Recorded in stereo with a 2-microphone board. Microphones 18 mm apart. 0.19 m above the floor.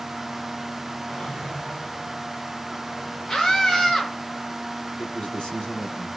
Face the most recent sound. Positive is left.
turn(degrees=55)  # may be behind; listen again after turning